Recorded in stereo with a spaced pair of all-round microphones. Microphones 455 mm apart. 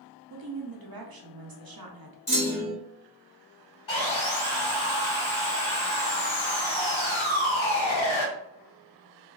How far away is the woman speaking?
About 0.6 m.